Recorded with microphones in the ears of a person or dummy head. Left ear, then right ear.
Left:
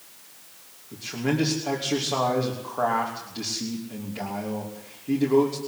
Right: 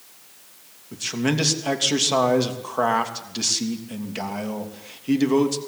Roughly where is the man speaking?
Right.